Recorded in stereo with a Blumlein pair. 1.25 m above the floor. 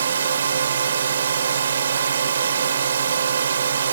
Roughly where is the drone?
Ahead right.